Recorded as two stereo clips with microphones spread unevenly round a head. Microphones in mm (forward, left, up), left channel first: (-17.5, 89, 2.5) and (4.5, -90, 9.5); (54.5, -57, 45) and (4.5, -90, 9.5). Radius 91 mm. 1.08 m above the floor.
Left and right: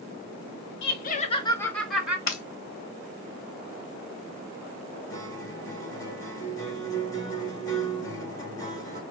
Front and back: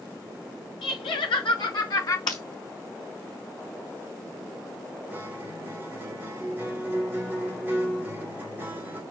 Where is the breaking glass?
50° left, 1.8 m.